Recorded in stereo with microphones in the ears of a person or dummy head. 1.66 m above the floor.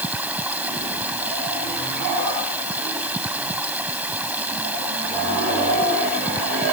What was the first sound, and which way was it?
Running water, 10° right (ahead or behind).